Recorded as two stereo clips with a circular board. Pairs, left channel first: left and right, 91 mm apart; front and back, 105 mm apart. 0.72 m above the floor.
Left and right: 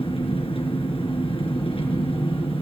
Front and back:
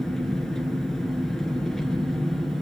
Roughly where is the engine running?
Left.